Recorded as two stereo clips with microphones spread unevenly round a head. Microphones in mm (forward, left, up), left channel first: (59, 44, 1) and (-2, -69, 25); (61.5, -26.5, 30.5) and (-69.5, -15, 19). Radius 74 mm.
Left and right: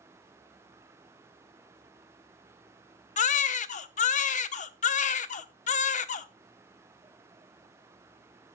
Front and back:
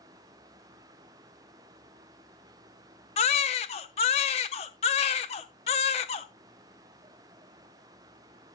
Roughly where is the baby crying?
Ahead left.